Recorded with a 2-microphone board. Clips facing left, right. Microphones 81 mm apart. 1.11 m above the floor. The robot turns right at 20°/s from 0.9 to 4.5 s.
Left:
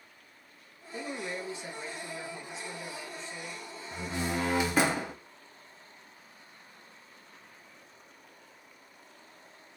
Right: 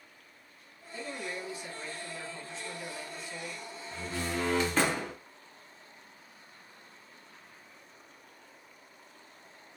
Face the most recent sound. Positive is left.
turn(degrees=10)  # may be behind; listen again after turning